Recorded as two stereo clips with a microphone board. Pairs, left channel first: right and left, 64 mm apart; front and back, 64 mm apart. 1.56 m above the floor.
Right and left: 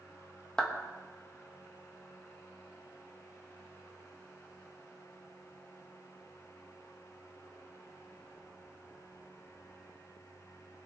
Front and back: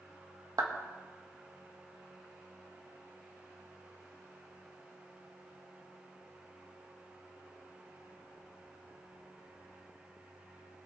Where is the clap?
170° right, 1.6 m.